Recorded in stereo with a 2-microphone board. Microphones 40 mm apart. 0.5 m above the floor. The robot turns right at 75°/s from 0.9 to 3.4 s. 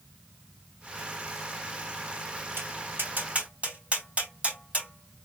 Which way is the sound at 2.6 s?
75° right (ahead or behind).